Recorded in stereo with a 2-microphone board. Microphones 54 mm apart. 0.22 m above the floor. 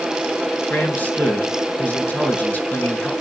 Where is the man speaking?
35° left (ahead or behind), 3 m.